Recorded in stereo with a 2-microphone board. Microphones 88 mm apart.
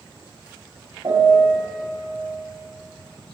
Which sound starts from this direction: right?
A piano, at 1.0 s.